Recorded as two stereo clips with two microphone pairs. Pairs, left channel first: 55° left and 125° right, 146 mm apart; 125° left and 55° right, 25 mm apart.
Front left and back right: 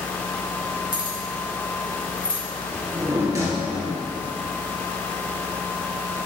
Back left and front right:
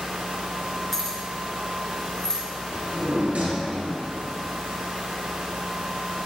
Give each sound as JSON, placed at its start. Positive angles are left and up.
{"t": 0.9, "sound": "keys jangling", "azimuth_deg": 45, "distance_m": 2.5}
{"t": 2.7, "sound": "a drawer", "azimuth_deg": -55, "distance_m": 3.0}